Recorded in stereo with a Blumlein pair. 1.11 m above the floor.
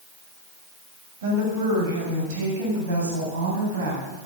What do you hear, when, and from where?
1.2 s a woman speaking: 55° right, 7.5 m; by 4.0 s 60° right, 9 m